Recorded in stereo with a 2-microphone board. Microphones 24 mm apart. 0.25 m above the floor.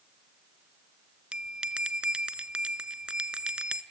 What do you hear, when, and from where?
1.3 s a bell: 45° right (ahead or behind), 0.6 m